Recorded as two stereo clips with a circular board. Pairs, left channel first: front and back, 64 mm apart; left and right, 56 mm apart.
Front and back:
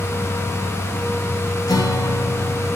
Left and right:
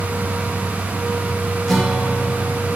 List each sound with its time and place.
1.7 s a guitar: straight ahead, 3 m